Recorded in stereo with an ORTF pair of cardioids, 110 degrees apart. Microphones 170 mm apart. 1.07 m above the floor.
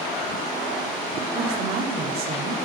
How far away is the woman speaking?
About 2.5 m.